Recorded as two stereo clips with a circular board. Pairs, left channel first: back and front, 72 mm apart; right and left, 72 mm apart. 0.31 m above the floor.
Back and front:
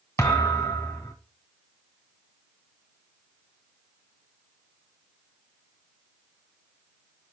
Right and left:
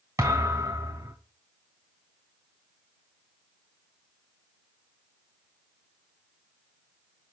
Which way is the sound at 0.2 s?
130° left.